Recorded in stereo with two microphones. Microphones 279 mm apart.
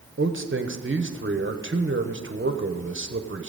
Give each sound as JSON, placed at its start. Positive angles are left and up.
{"t": 0.2, "sound": "a man speaking", "side_deg": -50, "distance_m": 0.9}